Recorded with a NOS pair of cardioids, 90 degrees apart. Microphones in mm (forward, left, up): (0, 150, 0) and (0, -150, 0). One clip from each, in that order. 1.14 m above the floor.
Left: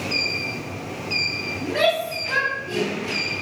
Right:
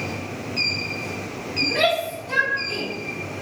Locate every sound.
1.6 s a shout: 30° left, 4 m; by 2.9 s 40° left, 3.5 m